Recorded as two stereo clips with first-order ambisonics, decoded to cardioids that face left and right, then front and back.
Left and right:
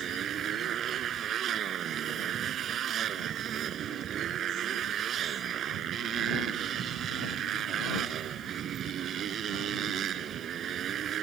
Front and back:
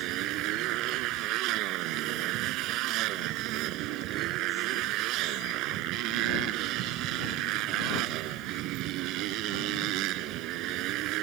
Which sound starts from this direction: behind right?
A motorcycle, at 0.0 s.